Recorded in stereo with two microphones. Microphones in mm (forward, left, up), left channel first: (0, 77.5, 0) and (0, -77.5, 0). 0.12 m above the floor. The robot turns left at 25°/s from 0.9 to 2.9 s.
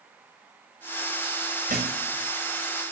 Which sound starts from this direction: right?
A thud, at 1.7 s.